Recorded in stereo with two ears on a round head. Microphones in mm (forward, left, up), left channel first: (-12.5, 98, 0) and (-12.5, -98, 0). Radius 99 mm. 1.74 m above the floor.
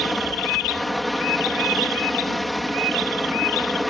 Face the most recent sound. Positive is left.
turn(degrees=0)  # may be behind; listen again after turning